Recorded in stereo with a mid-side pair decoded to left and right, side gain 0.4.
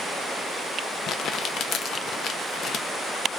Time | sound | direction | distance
1.1 | crumpling | 65° left | 0.5 m